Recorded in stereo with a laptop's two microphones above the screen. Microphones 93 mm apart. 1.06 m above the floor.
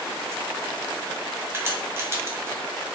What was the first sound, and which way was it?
A crack, 25° right (ahead or behind).